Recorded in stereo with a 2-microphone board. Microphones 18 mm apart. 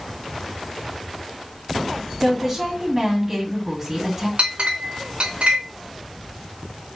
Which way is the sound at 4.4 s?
75° right (ahead or behind).